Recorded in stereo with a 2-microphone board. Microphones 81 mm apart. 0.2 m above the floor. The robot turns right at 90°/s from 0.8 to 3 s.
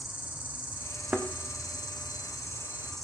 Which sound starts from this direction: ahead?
An insect, at 0.0 s.